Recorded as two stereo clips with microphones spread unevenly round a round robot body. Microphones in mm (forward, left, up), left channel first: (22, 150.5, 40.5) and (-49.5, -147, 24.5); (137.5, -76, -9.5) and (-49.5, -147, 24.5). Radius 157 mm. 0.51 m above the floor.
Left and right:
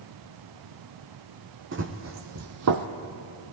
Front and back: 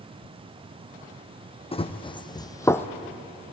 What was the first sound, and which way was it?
Running footsteps, 45° right.